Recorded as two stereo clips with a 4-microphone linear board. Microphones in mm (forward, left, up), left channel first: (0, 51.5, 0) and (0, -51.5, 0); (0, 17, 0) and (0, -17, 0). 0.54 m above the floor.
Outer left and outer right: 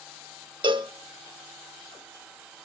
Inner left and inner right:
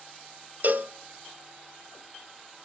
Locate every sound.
0.6 s a cowbell: 50° right (ahead or behind), 1.0 m